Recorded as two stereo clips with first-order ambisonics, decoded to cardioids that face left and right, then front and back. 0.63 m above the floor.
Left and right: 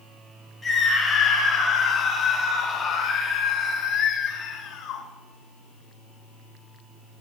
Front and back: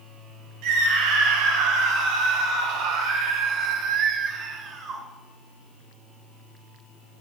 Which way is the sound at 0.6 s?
170° left.